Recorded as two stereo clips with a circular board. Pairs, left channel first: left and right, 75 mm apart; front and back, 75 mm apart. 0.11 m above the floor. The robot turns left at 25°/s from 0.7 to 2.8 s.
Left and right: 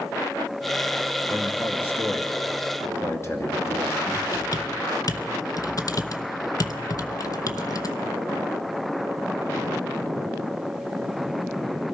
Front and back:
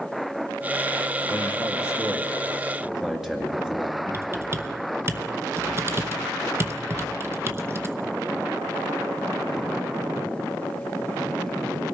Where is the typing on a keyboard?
125° left, 0.8 m.